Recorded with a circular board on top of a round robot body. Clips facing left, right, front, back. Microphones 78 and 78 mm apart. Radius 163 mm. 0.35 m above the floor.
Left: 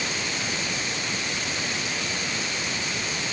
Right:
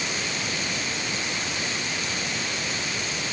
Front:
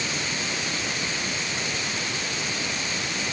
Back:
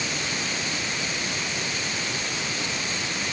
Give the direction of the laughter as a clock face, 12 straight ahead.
I don't hear laughter.